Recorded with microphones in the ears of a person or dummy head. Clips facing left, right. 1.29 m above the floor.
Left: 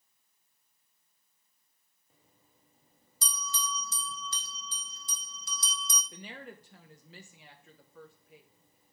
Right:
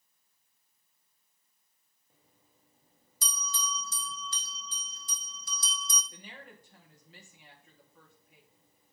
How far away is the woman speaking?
About 1.4 m.